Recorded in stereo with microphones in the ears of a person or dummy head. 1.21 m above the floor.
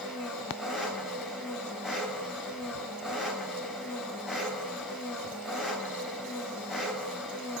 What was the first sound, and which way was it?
An engine running, 5° right (ahead or behind).